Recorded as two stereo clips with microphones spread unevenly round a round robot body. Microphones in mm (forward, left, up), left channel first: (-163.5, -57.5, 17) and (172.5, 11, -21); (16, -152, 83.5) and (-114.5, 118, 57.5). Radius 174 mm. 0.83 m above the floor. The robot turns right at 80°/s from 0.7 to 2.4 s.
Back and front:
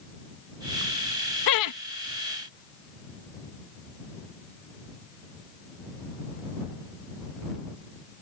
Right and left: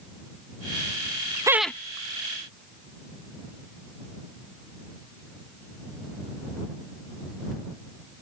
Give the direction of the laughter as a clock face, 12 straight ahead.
6 o'clock.